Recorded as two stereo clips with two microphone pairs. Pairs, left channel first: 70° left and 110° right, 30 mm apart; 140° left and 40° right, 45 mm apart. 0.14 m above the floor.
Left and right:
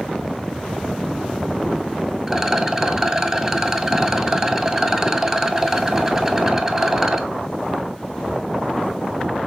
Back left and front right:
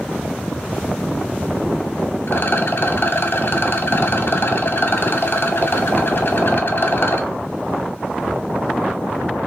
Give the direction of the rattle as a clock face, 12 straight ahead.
6 o'clock.